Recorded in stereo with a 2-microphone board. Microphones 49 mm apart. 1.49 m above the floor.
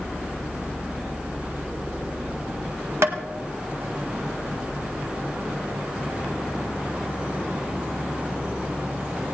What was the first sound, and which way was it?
Tapping, 65° right (ahead or behind).